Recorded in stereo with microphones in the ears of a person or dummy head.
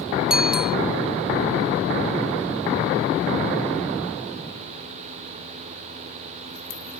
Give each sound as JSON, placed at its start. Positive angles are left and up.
{"t": 0.3, "sound": "a bicycle bell", "side_deg": -5}